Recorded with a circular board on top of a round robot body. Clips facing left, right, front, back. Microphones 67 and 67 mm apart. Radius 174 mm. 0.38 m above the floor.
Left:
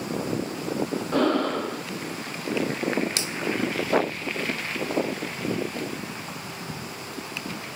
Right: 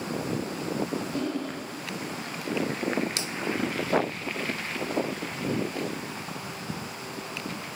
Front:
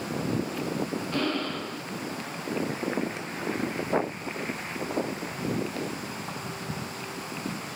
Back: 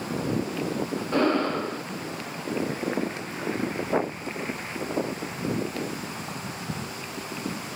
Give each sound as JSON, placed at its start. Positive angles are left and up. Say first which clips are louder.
{"t": 1.1, "sound": "breathing", "louder": "left 8 dB, back 9 dB", "azimuth_deg": 120, "distance_m": 0.5}